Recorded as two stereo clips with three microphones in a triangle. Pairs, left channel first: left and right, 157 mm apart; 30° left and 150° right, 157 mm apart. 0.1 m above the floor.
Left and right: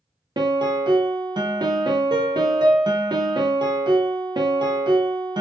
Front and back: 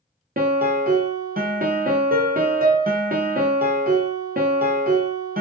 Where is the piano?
150° right, 0.6 m.